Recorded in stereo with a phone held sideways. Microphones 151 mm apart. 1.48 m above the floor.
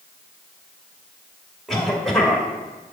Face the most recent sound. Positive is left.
turn(degrees=5)  # may be behind; listen again after turning